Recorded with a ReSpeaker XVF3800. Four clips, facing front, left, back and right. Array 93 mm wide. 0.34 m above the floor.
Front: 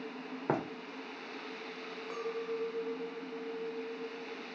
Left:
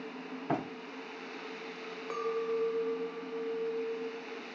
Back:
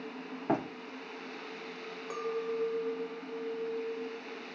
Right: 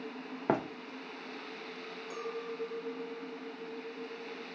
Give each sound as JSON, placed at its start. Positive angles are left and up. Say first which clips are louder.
{"t": 0.5, "sound": "running footsteps", "louder": "right 3 dB, back 2 dB", "azimuth_deg": -75, "distance_m": 1.7}
{"t": 2.1, "sound": "a clink", "louder": "left 8 dB, back 3 dB", "azimuth_deg": 100, "distance_m": 0.6}